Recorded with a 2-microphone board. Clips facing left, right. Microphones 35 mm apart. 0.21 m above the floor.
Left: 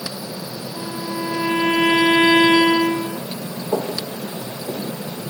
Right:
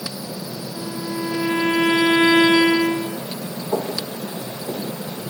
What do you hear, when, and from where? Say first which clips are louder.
0.7 s a violin: left 1 dB; 30° left (ahead or behind), 1.0 m
3.7 s footsteps: left 1 dB; 70° left (ahead or behind), 5 m; by 4.8 s 60° left (ahead or behind), 4.5 m